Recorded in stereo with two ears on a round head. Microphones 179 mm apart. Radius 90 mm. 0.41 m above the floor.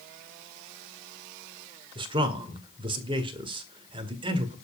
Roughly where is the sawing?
No sawing in this recording.